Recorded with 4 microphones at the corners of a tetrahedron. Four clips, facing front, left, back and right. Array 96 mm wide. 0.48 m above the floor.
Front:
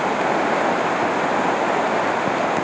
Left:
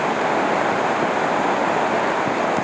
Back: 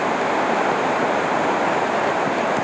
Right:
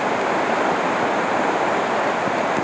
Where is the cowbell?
No cowbell in this recording.